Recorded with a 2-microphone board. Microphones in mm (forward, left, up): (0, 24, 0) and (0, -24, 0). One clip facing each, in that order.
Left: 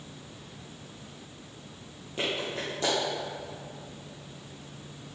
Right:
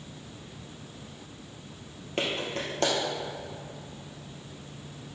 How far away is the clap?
About 3 m.